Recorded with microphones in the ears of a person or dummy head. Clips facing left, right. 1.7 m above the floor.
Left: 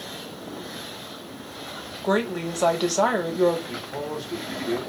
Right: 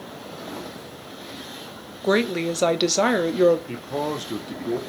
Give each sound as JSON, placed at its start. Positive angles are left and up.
{"t": 2.0, "sound": "a woman speaking", "side_deg": -30, "distance_m": 0.7}
{"t": 3.7, "sound": "a man speaking", "side_deg": -75, "distance_m": 1.2}